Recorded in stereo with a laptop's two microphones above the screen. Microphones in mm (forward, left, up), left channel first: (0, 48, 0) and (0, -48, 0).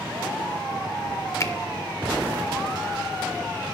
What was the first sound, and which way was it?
A finger snap, 35° left (ahead or behind).